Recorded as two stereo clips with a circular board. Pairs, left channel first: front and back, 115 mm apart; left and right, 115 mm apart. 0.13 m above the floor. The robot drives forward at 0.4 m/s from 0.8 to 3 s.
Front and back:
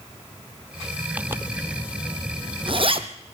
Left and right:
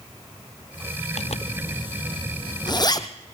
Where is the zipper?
105° left, 0.7 m; by 3.1 s 145° left, 1.1 m.